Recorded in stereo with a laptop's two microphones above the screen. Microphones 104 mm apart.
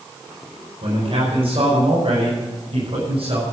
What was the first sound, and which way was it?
A man speaking, 65° right (ahead or behind).